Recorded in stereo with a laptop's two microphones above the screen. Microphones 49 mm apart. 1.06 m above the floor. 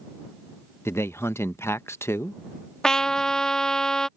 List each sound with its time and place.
0.8 s a man speaking: 65° left (ahead or behind)
2.8 s a trumpet: 15° left (ahead or behind)